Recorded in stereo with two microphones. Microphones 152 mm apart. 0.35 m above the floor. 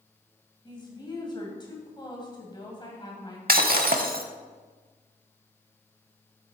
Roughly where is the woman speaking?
Left.